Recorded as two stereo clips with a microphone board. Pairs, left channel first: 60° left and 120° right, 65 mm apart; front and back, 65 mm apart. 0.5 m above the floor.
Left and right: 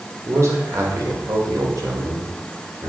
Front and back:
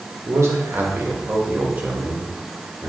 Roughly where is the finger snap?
I don't hear a finger snap.